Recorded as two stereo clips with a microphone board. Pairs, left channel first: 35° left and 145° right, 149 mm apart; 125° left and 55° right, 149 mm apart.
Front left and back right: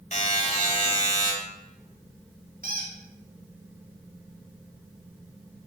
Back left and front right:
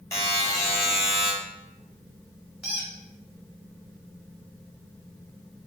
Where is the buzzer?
60° left, 1.3 m.